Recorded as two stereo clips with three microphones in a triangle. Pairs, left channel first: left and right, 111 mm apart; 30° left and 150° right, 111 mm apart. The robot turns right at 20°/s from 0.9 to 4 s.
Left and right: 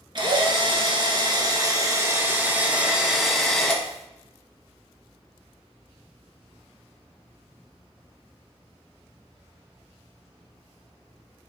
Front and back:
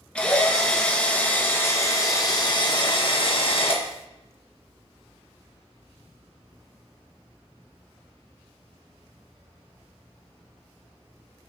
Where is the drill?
50° right, 1.2 m; by 3.8 s 10° left, 1.2 m.